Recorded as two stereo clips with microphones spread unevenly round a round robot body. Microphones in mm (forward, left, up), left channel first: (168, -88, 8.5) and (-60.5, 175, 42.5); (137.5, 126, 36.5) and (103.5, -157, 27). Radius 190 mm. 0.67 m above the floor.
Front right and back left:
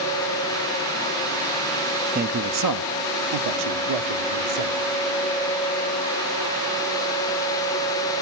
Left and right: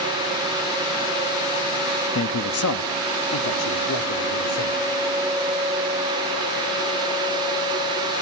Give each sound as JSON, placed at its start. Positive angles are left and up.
{"t": 2.1, "sound": "a man speaking", "azimuth_deg": 70, "distance_m": 0.7}